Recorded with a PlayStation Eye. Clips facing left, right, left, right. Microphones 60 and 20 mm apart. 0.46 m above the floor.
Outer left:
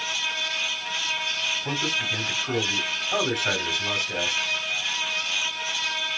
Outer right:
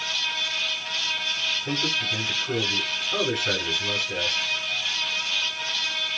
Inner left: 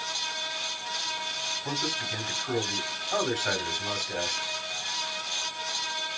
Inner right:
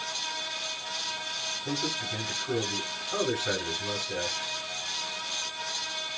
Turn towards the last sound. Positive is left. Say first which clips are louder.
# even, even
turn(degrees=70)  # may be behind; listen again after turning